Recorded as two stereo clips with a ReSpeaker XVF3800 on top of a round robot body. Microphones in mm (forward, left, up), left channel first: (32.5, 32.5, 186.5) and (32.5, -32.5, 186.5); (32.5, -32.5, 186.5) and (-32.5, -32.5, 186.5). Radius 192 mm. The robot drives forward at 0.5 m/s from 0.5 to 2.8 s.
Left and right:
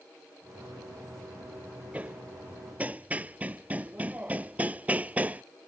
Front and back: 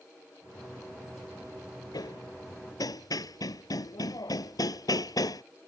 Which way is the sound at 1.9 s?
20° right.